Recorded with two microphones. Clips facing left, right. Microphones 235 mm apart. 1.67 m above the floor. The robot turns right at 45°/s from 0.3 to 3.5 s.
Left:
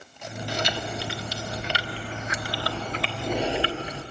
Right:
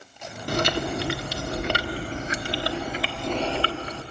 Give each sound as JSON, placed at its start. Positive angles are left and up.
{"t": 0.5, "sound": "chewing", "azimuth_deg": -120, "distance_m": 0.9}